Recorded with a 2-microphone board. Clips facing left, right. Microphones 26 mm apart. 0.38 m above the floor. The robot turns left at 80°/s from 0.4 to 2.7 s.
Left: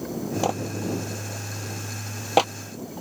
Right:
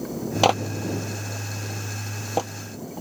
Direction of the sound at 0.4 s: 75° right (ahead or behind).